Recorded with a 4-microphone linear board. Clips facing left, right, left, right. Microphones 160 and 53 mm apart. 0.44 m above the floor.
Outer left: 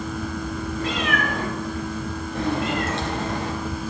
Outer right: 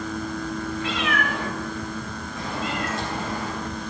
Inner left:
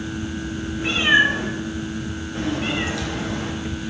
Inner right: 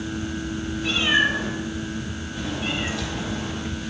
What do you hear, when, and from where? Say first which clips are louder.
0.8 s a cat meowing: outer left 3 dB, inner left 4 dB; 40° left (ahead or behind), 2.5 m; by 3.9 s 85° left, 2.5 m